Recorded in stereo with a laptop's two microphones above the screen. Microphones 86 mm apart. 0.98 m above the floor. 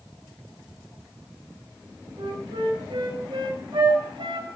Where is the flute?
90° right, 3.5 m.